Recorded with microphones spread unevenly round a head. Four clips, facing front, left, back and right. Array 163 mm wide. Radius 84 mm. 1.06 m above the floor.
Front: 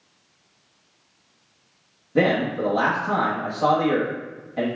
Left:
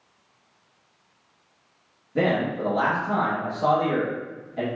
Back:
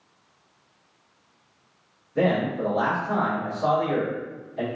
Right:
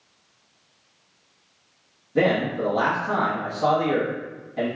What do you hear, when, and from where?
2.1 s a man speaking: 5° right, 1.1 m